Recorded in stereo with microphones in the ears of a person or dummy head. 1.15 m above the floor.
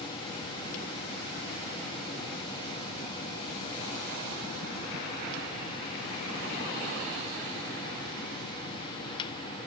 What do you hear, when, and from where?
Only background noise.